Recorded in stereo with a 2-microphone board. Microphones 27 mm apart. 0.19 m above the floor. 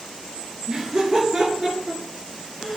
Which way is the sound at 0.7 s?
40° right (ahead or behind).